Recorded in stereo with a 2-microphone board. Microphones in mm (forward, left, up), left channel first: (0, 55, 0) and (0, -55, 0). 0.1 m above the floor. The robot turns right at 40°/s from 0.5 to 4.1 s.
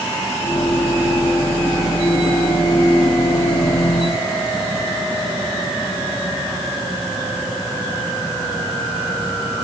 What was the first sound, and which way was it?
Only background noise.